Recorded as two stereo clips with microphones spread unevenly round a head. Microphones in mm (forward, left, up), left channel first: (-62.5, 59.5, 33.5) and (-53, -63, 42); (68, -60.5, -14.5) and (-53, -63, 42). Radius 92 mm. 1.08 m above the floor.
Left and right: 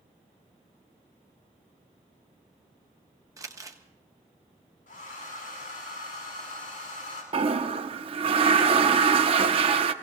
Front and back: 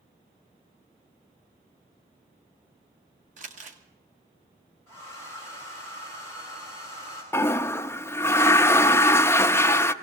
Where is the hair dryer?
110° left, 6.5 m.